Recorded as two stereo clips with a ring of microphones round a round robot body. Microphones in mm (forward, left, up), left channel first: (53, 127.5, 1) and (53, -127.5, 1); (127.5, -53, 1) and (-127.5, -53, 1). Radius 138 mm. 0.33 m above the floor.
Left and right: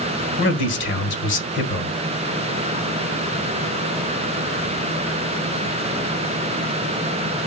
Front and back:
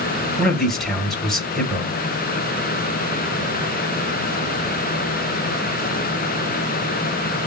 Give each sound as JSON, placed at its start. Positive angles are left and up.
{"t": 0.4, "sound": "a man speaking", "azimuth_deg": 90, "distance_m": 1.6}